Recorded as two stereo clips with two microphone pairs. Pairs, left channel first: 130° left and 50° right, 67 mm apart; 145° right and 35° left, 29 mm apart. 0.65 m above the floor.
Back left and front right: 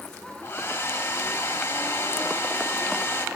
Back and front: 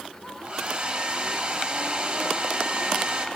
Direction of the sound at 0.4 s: 80° left.